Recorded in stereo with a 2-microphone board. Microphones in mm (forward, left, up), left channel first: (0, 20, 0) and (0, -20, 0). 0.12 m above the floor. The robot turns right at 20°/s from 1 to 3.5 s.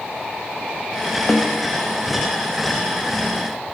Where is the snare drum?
40° left (ahead or behind), 4.5 m; by 1.7 s 45° left (ahead or behind), 4.5 m.